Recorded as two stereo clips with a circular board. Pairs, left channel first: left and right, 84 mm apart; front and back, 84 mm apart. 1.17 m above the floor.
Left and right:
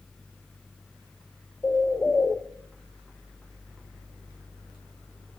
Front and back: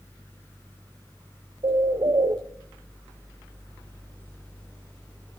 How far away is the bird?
About 0.6 m.